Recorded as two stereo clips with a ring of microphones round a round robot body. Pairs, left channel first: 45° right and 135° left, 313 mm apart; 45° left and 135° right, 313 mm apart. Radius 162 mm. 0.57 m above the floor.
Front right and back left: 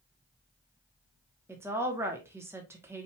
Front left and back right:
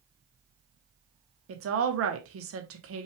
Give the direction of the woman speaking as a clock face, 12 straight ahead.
5 o'clock.